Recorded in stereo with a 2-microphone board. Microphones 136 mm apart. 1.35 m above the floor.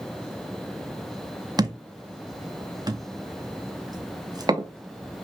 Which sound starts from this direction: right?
A thud, at 1.6 s.